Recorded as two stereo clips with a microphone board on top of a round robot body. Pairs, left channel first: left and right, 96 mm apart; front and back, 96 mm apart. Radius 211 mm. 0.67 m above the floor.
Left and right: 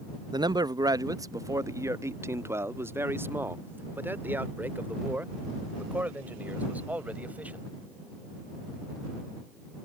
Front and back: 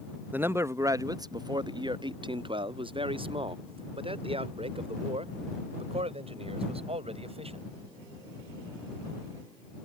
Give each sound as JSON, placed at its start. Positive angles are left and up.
{"t": 0.3, "sound": "a man speaking", "azimuth_deg": -115}